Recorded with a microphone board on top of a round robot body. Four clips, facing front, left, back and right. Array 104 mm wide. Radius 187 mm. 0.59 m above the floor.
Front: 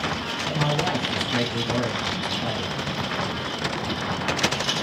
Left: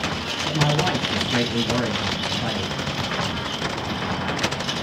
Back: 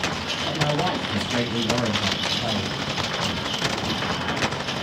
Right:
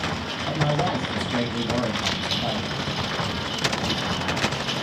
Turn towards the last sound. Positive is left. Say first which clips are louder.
# left 2 dB, back 1 dB
turn(degrees=100)